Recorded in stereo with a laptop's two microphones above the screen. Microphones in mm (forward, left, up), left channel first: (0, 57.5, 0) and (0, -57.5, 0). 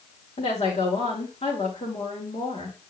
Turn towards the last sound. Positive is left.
turn(degrees=80)